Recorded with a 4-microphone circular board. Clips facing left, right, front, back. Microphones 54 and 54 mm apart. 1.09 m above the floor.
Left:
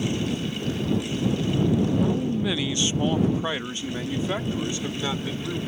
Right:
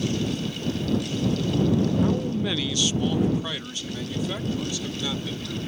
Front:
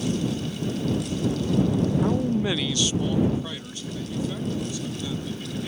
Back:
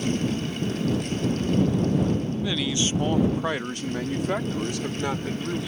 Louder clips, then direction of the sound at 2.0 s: Even, front 3 dB; 20° right.